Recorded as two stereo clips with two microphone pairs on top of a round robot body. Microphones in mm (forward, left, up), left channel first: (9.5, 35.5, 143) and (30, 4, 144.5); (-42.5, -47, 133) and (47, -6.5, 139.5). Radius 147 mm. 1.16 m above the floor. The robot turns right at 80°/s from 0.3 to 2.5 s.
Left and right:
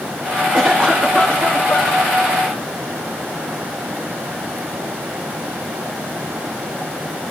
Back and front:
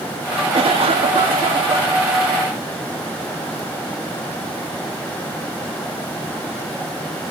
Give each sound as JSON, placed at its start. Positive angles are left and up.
{"t": 0.5, "sound": "a cough", "azimuth_deg": -15, "distance_m": 2.5}